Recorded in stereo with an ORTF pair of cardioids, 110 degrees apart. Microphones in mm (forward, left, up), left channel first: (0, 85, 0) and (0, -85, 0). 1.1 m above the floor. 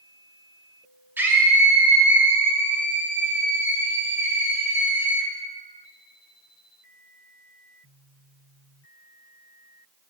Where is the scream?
10° right, 2.5 m.